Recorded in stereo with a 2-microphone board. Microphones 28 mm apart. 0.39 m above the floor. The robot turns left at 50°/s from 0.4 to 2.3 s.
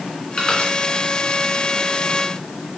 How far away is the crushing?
About 2.5 m.